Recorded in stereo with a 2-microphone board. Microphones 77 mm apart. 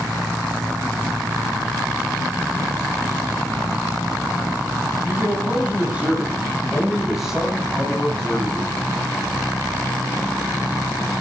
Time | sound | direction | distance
5.0 | a man speaking | 30° right (ahead or behind) | 7.5 m